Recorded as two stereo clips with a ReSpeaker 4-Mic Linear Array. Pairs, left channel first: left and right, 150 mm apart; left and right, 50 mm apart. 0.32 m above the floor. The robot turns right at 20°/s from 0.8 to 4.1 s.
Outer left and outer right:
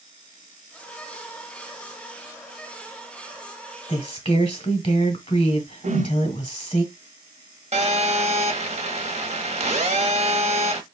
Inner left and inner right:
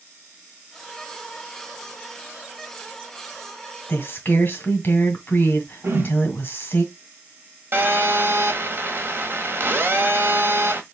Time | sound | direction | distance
3.9 | a woman speaking | 35° left (ahead or behind) | 1.4 m
5.8 | a whoosh | 50° right (ahead or behind) | 1.2 m
7.7 | a phone buzzing | 45° right (ahead or behind) | 1.1 m